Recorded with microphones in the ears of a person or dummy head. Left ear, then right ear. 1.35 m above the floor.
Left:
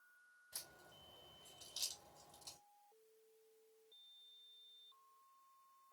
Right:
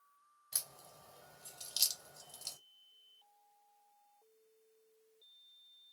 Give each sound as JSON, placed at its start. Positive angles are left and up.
{"t": 0.5, "sound": "a crack", "side_deg": -65, "distance_m": 3.0}